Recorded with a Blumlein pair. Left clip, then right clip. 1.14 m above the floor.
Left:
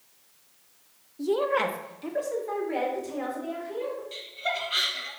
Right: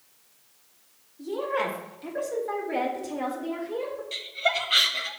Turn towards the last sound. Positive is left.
turn(degrees=-25)